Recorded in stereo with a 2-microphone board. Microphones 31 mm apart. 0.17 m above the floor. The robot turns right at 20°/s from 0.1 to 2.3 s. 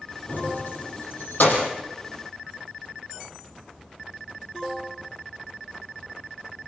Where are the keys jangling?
75° left (ahead or behind), 4.5 m; by 1.7 s 70° left (ahead or behind), 4.5 m.